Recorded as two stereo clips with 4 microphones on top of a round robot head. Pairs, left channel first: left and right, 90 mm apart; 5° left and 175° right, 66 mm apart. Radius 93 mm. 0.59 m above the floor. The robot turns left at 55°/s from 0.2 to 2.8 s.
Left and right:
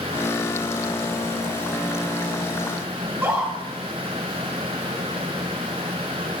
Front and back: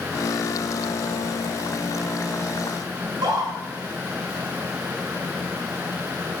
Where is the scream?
165° right, 7 m.